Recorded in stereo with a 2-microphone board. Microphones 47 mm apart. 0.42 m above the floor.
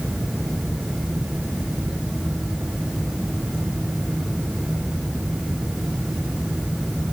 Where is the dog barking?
I don't hear a dog barking.